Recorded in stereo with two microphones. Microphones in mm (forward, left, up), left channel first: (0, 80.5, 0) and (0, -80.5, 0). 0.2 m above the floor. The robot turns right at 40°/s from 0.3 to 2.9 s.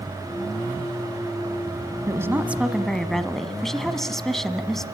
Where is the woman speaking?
30° right, 1.2 m; by 4.8 s 5° left, 1.2 m.